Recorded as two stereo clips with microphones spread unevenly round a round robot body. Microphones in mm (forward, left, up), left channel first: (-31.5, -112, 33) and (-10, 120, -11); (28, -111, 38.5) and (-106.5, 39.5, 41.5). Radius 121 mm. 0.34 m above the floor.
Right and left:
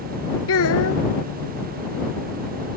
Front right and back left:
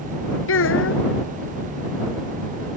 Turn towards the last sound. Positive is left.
turn(degrees=-60)